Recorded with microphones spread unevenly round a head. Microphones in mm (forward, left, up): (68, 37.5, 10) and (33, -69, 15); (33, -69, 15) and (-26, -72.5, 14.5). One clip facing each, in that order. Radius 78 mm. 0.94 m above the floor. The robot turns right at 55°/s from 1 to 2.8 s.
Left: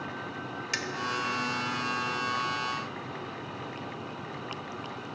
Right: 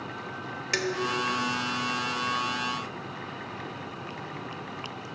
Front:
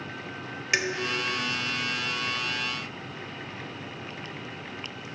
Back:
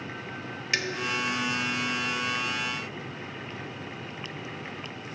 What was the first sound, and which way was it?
Dishes clattering, 70° right.